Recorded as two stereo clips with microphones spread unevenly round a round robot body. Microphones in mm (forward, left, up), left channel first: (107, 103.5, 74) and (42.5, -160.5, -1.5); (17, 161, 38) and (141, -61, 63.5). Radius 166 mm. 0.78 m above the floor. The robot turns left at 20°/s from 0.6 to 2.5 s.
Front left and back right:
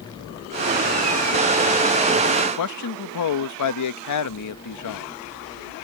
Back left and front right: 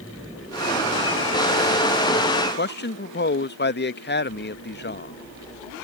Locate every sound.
2.6 s a man speaking: 95° left